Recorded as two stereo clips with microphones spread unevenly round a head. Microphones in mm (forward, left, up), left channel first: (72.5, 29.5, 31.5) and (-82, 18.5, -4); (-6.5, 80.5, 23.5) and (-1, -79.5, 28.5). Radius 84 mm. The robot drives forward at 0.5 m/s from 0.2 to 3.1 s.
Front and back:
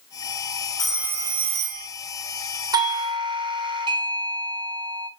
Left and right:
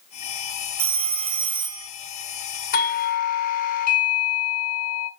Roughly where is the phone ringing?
Ahead right.